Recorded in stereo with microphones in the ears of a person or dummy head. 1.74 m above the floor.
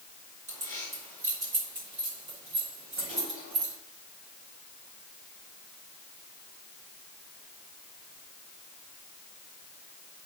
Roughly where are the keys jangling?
Right.